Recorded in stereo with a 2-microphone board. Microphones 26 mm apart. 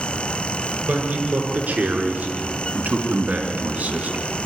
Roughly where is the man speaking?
Right.